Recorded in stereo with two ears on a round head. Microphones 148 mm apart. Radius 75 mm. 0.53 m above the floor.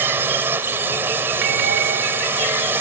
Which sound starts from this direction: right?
A bell, at 1.4 s.